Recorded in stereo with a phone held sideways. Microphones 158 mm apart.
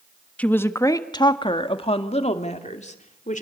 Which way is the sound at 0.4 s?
10° left (ahead or behind).